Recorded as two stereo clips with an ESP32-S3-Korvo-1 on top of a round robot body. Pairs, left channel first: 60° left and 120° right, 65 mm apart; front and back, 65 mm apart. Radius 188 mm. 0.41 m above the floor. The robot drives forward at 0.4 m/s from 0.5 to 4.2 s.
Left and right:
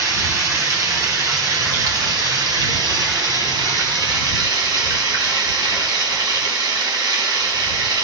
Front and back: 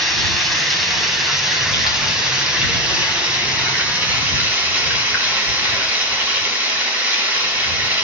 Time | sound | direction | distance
0.0 | running water | 90° right | 3.5 m